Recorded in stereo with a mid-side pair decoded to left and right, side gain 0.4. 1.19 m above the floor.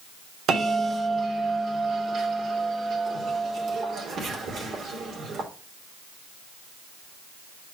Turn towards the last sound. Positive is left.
turn(degrees=-70)